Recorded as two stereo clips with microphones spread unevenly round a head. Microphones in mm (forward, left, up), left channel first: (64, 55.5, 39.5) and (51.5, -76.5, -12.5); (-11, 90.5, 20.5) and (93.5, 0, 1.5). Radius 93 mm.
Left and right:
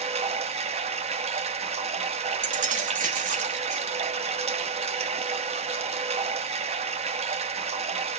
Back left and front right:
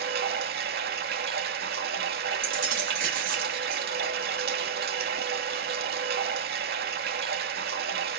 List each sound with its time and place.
0.0 s running water: 55° right, 1.0 m
2.4 s keys jangling: 85° right, 1.2 m